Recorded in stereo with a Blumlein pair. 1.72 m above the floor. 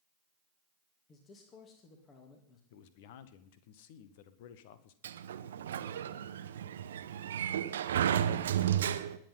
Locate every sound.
1.1 s a man speaking: 25° left, 3 m
2.7 s a man speaking: 50° left, 1.5 m
5.0 s a sliding door: 60° right, 0.8 m